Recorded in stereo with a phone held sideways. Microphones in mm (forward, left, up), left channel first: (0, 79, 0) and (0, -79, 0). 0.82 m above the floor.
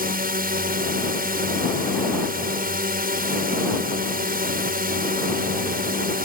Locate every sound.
0.0 s a drone: 65° right (ahead or behind)